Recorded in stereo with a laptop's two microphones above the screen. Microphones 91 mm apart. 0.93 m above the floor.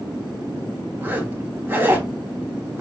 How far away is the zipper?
About 0.8 m.